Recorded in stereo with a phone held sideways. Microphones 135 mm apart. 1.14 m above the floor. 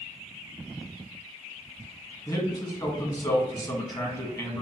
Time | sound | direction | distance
2.3 | a man speaking | 25° left (ahead or behind) | 1.3 m